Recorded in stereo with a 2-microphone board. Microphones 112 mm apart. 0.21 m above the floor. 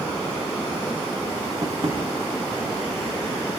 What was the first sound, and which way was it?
Tapping, 55° right (ahead or behind).